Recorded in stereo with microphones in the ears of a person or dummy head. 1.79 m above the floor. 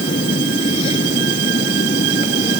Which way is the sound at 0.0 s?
35° left (ahead or behind).